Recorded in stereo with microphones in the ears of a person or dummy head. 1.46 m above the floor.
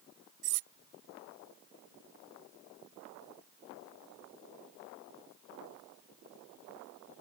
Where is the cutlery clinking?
60° right (ahead or behind).